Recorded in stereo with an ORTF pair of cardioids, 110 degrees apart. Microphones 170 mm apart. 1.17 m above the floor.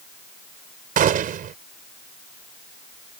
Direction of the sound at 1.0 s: 55° right.